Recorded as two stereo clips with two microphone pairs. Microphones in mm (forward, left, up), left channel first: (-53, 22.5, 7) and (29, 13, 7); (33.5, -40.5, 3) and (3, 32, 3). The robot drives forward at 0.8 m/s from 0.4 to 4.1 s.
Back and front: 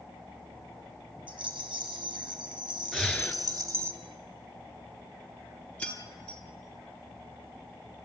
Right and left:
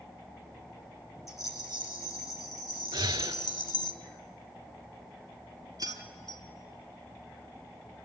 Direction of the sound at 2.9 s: 90° left.